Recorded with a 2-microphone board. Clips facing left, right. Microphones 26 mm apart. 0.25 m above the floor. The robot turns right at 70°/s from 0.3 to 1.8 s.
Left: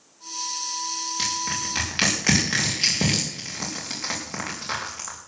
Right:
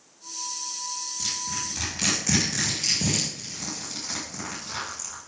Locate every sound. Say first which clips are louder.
1.2 s crushing: left 4 dB; 80° left, 6.5 m; by 5.2 s 55° left (ahead or behind), 6.5 m